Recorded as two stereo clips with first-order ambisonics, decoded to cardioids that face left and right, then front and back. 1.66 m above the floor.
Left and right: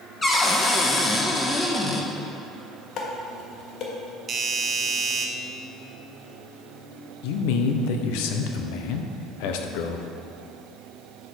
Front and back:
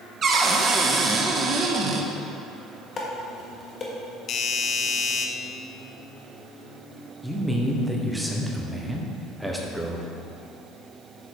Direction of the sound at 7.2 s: 95° left.